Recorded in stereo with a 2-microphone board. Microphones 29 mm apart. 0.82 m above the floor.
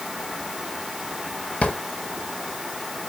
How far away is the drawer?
About 1.5 m.